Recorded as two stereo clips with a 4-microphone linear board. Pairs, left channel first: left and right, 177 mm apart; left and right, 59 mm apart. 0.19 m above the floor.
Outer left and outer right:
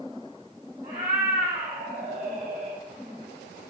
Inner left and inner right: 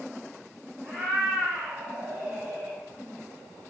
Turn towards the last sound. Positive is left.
turn(degrees=-35)  # may be behind; listen again after turning